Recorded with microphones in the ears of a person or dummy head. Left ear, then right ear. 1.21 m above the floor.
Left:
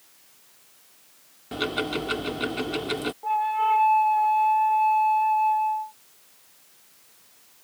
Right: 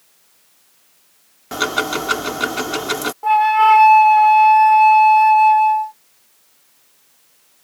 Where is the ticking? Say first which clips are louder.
Right 8 dB; 50° right (ahead or behind).